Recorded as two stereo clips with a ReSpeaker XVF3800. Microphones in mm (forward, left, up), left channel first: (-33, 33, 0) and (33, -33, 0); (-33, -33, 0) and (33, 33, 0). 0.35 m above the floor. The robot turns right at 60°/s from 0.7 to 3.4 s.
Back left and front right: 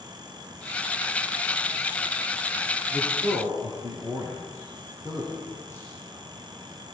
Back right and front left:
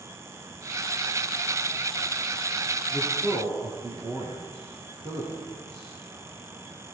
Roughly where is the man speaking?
Ahead.